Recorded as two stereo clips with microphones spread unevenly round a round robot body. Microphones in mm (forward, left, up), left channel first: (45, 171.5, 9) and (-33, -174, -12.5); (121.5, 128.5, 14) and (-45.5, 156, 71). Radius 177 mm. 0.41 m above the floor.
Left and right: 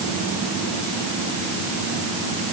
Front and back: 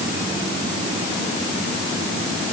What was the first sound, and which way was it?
Only background noise.